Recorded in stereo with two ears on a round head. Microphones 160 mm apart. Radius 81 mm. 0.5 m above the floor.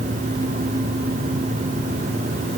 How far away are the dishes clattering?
No dishes clattering in this recording.